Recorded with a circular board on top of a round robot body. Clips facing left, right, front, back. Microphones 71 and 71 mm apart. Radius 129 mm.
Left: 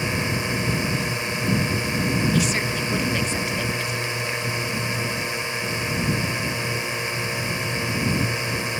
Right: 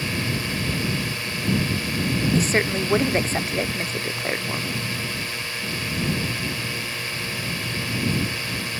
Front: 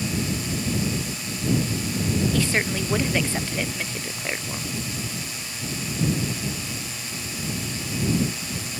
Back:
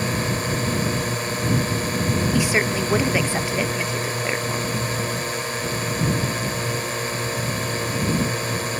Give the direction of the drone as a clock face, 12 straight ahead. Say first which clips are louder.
Left 2 dB, back 4 dB; 7 o'clock.